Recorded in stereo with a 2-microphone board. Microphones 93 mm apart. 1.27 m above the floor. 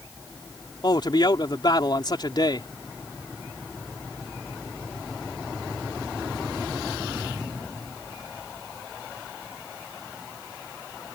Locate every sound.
0.8 s a man speaking: 55° left (ahead or behind)